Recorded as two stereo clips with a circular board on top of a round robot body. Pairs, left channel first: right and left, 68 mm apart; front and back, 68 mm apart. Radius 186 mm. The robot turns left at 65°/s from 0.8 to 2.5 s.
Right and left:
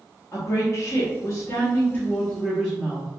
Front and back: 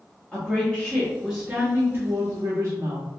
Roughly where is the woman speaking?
Right.